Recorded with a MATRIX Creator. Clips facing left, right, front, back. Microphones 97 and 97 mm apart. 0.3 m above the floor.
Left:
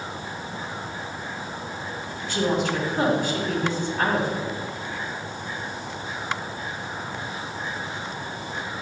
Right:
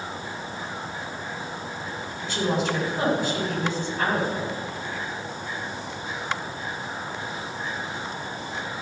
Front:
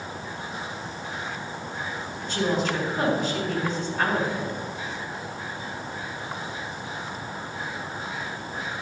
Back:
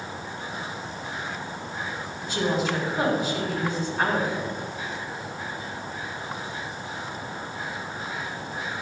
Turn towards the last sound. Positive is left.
turn(degrees=95)